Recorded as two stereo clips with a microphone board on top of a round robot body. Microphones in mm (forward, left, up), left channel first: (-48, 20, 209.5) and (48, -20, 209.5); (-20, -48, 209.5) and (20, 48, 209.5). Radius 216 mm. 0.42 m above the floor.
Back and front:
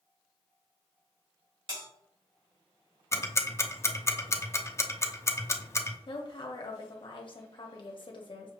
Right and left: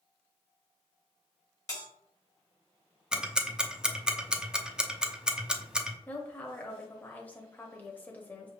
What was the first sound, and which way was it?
A bell, 55° right.